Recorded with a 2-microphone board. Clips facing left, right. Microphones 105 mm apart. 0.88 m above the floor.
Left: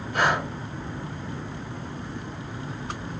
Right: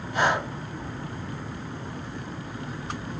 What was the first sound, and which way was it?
Breathing, 60° left (ahead or behind).